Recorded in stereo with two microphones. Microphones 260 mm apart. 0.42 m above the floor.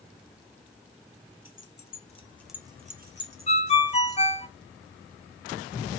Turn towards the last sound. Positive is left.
turn(degrees=25)  # may be behind; listen again after turning